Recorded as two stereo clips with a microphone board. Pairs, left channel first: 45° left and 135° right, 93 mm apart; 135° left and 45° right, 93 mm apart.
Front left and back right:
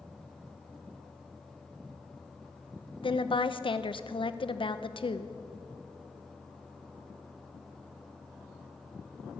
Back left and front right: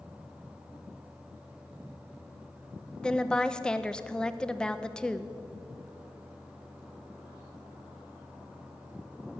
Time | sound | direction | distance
3.0 | a woman speaking | 55° left | 0.6 m